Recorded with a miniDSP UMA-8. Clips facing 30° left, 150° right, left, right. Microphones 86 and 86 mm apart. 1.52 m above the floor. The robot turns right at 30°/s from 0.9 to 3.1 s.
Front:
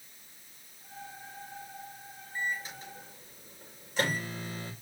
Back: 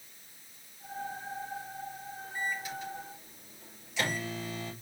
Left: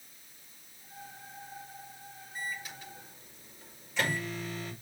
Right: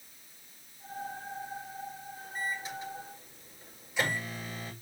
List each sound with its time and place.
2.4 s a microwave: 35° right, 7 m; by 4.7 s 15° right, 7 m